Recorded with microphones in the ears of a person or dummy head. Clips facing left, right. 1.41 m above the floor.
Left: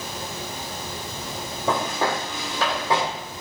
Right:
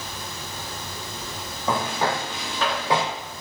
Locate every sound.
1.7 s footsteps: 30° left (ahead or behind), 1.8 m; by 3.0 s centre (ahead or behind), 1.4 m